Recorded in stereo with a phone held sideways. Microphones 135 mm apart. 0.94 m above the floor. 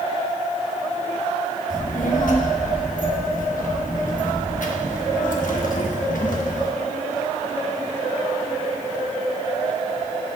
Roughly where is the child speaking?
Left.